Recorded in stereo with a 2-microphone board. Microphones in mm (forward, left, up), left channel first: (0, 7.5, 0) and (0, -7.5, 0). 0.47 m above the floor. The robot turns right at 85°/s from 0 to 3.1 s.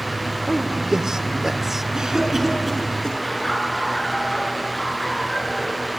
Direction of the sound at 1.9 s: 50° right (ahead or behind).